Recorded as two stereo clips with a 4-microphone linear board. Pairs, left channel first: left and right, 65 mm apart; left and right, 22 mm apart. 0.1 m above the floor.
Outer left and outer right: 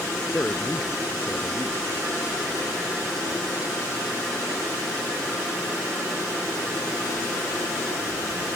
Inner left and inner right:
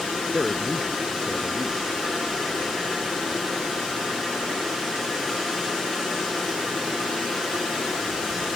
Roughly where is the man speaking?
Left.